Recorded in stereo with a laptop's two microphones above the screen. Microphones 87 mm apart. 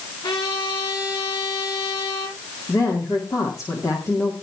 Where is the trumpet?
85° left, 10 m.